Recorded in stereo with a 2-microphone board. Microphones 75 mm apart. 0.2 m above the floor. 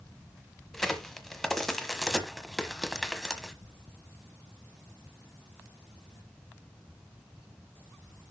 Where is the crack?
5° left (ahead or behind), 1.3 m.